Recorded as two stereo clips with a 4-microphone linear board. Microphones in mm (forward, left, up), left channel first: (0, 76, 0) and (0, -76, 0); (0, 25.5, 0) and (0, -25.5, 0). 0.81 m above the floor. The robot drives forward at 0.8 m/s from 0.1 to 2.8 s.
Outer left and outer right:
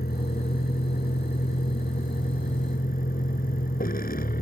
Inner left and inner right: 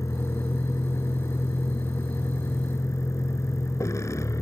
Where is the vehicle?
90° left; by 4.4 s 70° left (ahead or behind).